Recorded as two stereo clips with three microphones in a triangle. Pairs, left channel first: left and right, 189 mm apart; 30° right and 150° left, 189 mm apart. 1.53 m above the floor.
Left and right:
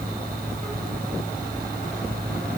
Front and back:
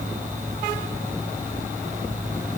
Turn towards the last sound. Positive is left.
No sound to turn to.